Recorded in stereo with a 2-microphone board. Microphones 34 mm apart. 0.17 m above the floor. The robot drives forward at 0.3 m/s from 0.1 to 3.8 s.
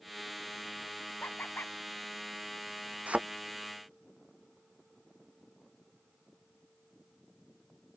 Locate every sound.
1.2 s laughter: 70° left (ahead or behind)
3.1 s a thud: 45° right (ahead or behind)